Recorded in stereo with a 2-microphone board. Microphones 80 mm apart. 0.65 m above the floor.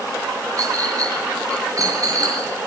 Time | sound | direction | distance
0.6 | a clink | 45° right (ahead or behind) | 5.5 m